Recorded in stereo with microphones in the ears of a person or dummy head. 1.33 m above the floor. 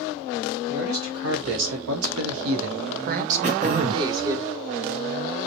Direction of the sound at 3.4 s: 35° right (ahead or behind).